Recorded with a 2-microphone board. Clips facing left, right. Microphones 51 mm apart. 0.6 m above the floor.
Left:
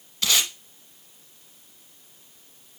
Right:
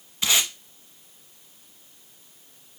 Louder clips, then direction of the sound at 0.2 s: Even; 20° right (ahead or behind).